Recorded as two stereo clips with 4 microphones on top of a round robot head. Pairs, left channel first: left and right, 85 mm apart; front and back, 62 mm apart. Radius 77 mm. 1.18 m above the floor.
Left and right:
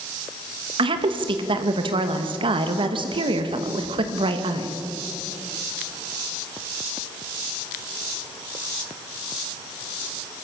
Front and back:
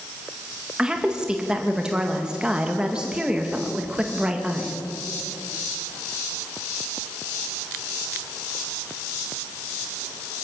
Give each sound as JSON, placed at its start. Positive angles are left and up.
{"t": 0.8, "sound": "a woman speaking", "azimuth_deg": -105, "distance_m": 1.9}